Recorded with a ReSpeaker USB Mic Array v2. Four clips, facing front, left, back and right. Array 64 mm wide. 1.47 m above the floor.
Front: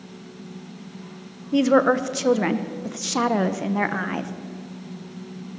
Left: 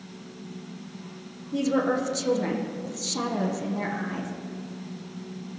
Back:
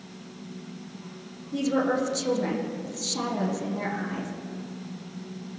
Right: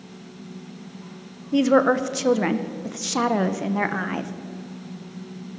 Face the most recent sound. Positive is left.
turn(degrees=-45)